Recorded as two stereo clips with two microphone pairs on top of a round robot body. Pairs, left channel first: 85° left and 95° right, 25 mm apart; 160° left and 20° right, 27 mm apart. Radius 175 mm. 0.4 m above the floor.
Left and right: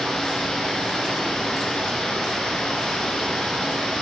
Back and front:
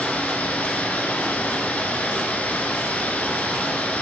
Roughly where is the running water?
Behind left.